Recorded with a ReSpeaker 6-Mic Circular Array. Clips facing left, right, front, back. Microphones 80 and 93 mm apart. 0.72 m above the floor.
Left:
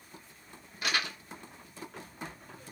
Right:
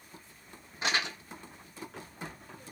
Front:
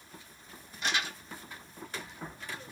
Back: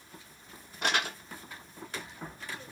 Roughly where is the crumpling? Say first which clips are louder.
Right 1 dB, back 3 dB; behind right.